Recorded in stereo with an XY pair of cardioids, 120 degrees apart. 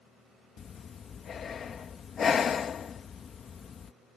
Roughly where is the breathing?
Ahead left.